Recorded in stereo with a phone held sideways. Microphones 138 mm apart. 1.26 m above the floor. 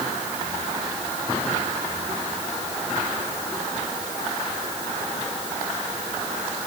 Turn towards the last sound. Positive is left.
No sound to turn to.